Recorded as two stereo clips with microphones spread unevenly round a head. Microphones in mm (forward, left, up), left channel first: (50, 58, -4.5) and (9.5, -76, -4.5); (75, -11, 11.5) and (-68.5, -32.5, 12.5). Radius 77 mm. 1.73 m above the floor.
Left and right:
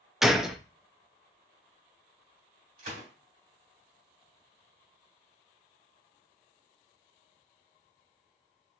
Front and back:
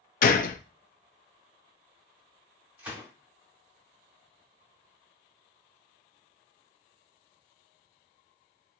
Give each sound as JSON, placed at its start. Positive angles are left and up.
{"t": 0.2, "sound": "a gunshot", "azimuth_deg": -20, "distance_m": 0.6}
{"t": 2.8, "sound": "a gunshot", "azimuth_deg": -95, "distance_m": 3.0}